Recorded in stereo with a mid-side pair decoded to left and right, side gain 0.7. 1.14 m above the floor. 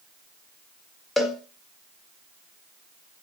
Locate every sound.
1.2 s a cowbell: 15° left, 1.0 m